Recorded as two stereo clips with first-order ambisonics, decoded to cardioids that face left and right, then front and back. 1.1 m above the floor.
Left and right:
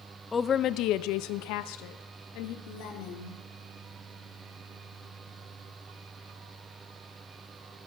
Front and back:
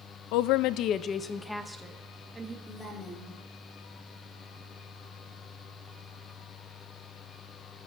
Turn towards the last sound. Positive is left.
turn(degrees=80)